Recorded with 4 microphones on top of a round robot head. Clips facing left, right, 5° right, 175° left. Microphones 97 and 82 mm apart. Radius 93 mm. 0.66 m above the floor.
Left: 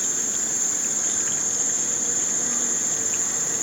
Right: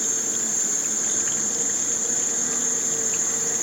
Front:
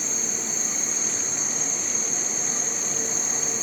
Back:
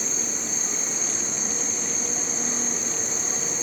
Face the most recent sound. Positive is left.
turn(degrees=-150)